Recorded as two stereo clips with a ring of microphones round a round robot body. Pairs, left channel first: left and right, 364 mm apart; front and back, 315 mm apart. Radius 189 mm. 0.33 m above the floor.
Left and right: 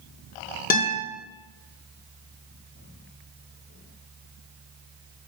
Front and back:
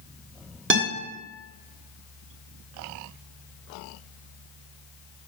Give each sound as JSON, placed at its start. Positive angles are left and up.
{"t": 0.7, "sound": "a guitar", "azimuth_deg": 145, "distance_m": 1.6}